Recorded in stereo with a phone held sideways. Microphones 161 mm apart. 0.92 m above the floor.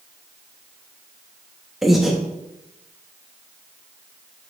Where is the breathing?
Centre (ahead or behind), 1.4 m.